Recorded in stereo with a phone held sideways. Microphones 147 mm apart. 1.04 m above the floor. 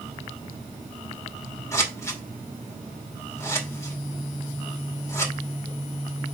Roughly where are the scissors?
Centre.